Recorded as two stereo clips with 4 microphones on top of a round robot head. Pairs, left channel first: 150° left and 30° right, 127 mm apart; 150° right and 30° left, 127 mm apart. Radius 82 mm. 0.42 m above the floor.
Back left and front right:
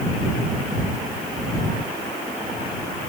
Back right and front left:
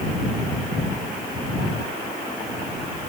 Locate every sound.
Only background noise.